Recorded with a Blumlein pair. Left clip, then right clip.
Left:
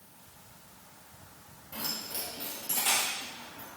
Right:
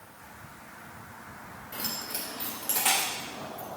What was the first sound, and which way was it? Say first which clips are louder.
Keys jangling: right 1 dB; 70° right.